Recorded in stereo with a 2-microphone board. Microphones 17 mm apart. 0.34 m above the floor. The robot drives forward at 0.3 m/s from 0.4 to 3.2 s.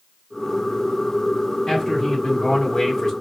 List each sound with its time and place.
1.7 s a man speaking: 30° left (ahead or behind), 2.0 m; by 3.1 s 25° left (ahead or behind), 2.5 m